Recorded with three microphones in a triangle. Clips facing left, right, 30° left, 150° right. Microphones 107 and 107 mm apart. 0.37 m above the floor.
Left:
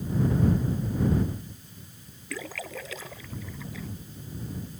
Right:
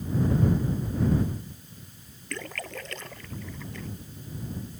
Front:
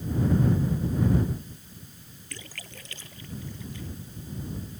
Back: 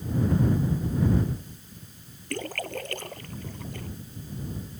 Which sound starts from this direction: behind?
A splash, at 2.3 s.